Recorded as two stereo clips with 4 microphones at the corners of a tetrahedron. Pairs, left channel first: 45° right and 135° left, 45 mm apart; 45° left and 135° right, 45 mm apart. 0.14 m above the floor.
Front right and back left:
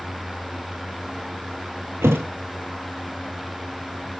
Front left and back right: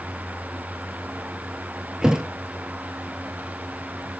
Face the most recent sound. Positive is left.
turn(degrees=150)